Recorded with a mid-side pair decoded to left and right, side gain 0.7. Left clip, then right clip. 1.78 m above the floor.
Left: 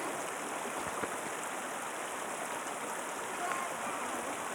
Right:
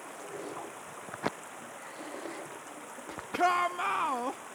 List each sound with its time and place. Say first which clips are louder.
0.0 s running water: left 4 dB; 30° left
3.3 s a shout: right 11 dB; 50° right